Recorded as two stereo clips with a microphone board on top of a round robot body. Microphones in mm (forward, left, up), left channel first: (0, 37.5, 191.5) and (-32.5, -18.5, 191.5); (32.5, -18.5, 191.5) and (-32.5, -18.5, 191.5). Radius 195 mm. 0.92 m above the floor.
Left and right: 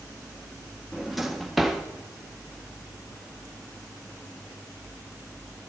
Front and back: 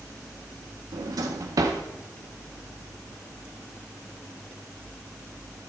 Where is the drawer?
155° left, 0.6 m.